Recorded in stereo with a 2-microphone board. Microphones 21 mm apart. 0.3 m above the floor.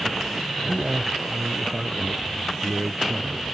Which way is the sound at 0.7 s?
20° right (ahead or behind).